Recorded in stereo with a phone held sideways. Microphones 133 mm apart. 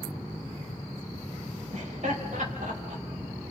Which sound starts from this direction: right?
Laughter, at 1.7 s.